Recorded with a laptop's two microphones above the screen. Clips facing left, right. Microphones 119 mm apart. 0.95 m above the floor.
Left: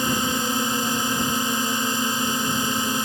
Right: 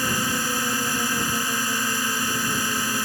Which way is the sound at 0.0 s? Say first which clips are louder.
Left 2 dB; 20° left (ahead or behind).